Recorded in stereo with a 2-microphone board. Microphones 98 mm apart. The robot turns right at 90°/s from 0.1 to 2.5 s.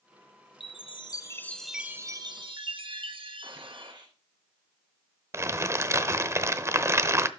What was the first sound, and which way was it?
A chime, 85° left.